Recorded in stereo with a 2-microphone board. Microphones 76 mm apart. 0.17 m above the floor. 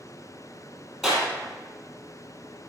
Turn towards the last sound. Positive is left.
turn(degrees=0)  # may be behind; listen again after turning